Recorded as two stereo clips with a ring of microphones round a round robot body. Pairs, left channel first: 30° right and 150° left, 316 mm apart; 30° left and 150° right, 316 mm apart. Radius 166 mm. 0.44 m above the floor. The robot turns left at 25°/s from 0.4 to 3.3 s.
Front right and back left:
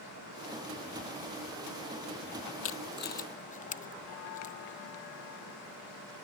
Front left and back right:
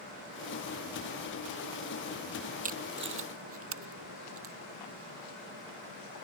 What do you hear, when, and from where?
2.6 s tape being pulled: 80° right; by 4.5 s 100° right